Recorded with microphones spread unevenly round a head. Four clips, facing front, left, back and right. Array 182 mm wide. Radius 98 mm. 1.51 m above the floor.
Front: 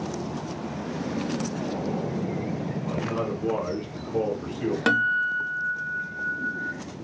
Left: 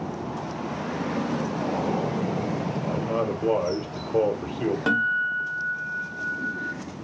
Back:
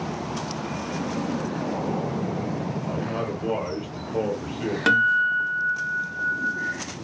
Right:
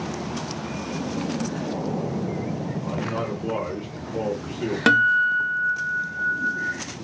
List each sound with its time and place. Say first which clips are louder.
2.8 s a man speaking: left 3 dB, even; 95° left, 1.0 m
4.9 s a guitar: right 11 dB, back 5 dB; 95° right, 0.6 m